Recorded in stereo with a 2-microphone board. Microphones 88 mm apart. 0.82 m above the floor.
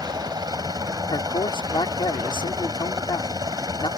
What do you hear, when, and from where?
0.0 s a helicopter: 50° right (ahead or behind)
1.1 s a man speaking: 70° left (ahead or behind)